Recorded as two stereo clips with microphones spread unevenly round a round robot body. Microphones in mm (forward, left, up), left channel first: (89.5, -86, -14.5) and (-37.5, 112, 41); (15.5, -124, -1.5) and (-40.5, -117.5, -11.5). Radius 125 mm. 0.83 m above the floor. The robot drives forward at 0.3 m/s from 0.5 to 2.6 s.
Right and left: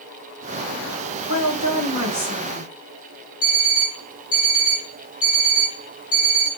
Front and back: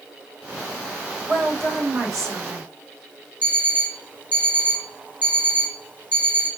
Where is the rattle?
I don't hear a rattle.